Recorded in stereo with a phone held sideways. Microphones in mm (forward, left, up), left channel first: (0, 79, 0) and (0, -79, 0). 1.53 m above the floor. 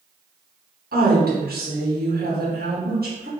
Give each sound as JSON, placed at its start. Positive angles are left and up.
{"t": 0.9, "sound": "a woman speaking", "side_deg": -75, "distance_m": 1.3}